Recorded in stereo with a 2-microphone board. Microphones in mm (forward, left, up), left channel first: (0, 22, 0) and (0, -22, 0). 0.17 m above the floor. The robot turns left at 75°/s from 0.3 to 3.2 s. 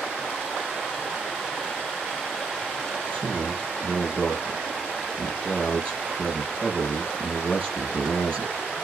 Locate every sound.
3.1 s a man speaking: 30° left (ahead or behind), 5.5 m; by 8.5 s 25° left (ahead or behind), 5.5 m